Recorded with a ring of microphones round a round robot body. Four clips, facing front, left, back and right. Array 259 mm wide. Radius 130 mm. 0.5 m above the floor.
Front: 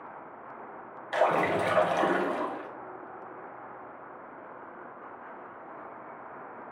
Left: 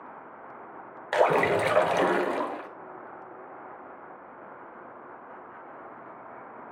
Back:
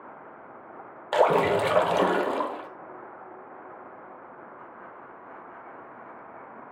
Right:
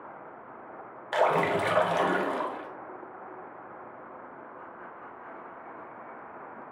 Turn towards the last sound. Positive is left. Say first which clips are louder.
# left 2 dB, back 4 dB
turn(degrees=150)